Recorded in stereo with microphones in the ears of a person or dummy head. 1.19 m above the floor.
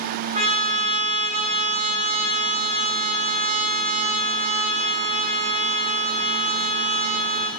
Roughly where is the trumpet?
Right.